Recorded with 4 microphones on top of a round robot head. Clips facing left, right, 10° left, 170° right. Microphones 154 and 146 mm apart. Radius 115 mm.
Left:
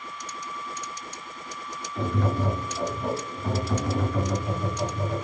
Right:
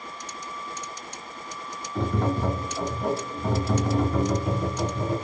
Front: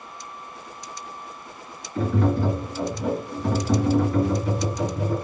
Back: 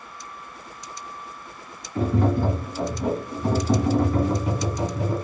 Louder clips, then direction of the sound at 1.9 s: Right 1 dB, even; 100° right.